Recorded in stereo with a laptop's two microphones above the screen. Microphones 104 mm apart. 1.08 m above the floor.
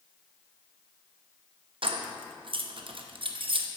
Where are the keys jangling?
65° right (ahead or behind), 0.5 m.